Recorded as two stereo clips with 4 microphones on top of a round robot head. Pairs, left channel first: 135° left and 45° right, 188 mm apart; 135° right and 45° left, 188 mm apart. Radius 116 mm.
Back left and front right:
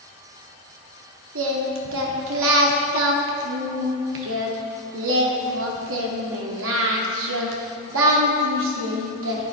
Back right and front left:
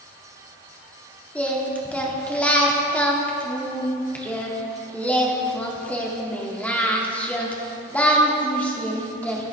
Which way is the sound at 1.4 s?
55° right.